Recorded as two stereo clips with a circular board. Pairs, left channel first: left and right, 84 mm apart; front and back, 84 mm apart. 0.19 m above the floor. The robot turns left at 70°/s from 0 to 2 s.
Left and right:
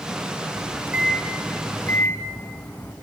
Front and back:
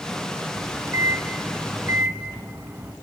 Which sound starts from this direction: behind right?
A microwave, at 0.6 s.